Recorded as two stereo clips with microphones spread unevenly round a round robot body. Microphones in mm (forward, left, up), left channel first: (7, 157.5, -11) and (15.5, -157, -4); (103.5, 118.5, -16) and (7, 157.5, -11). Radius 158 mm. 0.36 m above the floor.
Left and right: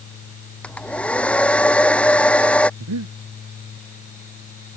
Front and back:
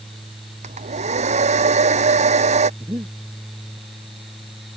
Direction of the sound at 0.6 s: Straight behind.